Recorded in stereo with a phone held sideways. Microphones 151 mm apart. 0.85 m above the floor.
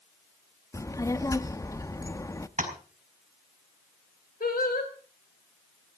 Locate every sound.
0.7 s a child speaking: 20° left (ahead or behind), 0.7 m
2.6 s tapping: 55° right (ahead or behind), 4 m
4.4 s singing: 80° left, 3.5 m